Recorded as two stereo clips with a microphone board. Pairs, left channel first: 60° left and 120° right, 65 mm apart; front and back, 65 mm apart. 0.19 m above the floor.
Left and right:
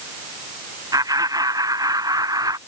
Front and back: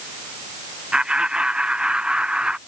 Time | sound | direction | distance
0.9 | laughter | 105° right | ?